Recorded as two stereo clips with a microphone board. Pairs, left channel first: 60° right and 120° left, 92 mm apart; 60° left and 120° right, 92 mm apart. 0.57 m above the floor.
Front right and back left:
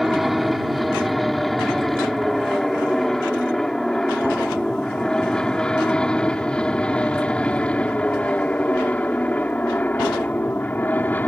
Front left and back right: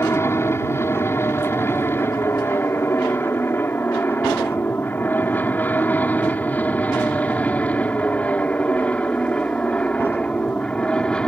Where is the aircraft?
35° left; by 11.3 s 10° right.